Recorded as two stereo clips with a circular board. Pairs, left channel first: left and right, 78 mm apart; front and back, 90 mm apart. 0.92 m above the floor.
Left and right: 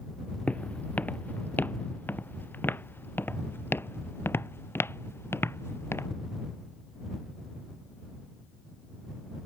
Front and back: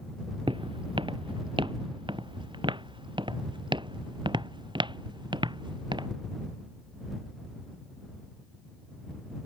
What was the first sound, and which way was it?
Footsteps, 160° left.